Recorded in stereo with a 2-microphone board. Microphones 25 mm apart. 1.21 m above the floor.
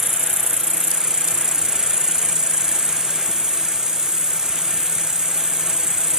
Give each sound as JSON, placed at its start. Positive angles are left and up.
{"t": 0.0, "sound": "an insect", "side_deg": -30, "distance_m": 1.0}